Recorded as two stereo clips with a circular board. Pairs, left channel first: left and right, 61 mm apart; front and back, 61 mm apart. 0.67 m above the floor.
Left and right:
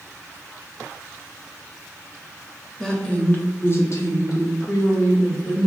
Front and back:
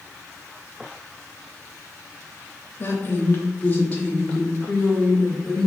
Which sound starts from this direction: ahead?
A woman speaking, at 2.8 s.